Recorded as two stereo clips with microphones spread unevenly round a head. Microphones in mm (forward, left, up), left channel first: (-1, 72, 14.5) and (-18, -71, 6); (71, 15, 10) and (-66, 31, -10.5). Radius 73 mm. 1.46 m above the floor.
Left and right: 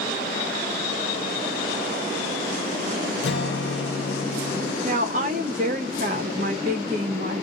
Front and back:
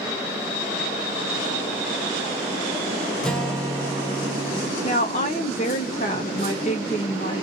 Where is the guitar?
75° left, 0.7 m.